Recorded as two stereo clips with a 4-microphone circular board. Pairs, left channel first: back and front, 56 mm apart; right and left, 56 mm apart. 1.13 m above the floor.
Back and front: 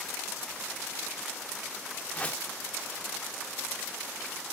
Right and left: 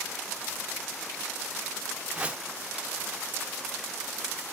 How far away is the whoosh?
About 0.8 m.